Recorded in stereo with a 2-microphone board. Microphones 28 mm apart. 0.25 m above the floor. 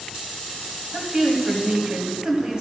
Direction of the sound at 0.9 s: 25° right (ahead or behind).